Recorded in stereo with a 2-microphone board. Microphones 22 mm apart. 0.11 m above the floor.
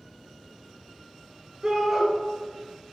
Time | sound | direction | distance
1.6 | a shout | 20° right (ahead or behind) | 1.8 m